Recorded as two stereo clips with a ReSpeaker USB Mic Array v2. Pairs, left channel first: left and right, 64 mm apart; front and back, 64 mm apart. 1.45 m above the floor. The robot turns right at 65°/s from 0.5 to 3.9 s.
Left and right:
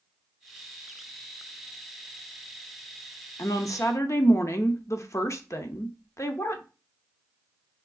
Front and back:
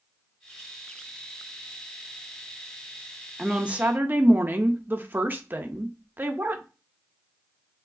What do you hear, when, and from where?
3.4 s a woman speaking: 90° left, 0.5 m; by 6.6 s 125° left, 0.5 m